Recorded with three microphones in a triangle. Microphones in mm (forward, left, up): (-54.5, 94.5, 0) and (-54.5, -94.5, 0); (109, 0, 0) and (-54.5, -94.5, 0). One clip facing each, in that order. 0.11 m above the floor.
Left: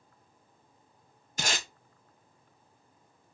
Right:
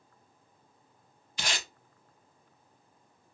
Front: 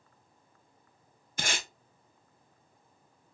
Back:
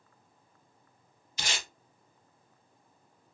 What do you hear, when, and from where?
1.4 s tape being pulled: 55° left, 0.7 m